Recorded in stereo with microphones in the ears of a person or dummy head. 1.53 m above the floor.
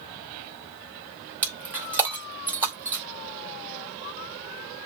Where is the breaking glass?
10° right (ahead or behind), 1.8 m.